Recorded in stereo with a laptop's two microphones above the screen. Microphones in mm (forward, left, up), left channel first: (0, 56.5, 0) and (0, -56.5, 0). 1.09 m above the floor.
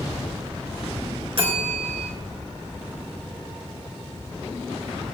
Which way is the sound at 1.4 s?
55° right (ahead or behind).